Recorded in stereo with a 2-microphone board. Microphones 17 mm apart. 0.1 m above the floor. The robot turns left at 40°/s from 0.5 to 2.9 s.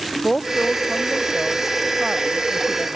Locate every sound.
0.2 s a woman speaking: 45° left; by 3.0 s 50° right